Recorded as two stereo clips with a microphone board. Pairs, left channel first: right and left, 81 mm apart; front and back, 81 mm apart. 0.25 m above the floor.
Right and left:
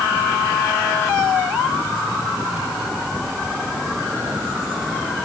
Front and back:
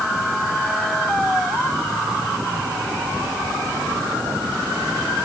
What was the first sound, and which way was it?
Only background noise.